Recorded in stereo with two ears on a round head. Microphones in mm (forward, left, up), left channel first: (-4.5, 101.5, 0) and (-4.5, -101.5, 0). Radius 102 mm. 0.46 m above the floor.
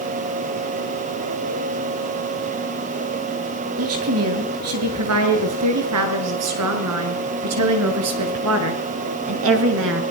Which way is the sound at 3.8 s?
70° right (ahead or behind).